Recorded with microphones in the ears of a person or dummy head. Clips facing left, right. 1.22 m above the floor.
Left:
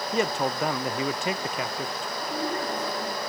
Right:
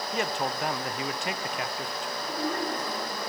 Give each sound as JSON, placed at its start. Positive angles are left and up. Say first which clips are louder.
{"t": 0.1, "sound": "a man speaking", "louder": "left 5 dB", "side_deg": 65, "distance_m": 0.6}
{"t": 2.2, "sound": "a woman speaking", "louder": "left 1 dB", "side_deg": 10, "distance_m": 5.0}